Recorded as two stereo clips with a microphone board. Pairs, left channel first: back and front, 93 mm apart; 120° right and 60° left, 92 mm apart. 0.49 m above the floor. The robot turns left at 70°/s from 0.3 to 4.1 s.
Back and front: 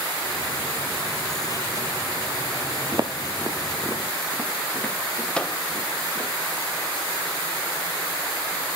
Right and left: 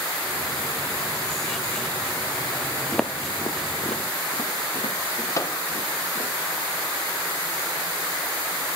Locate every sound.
2.9 s footsteps: 35° right, 0.9 m; by 6.3 s 105° right, 4.5 m
5.3 s a microwave: 105° right, 0.8 m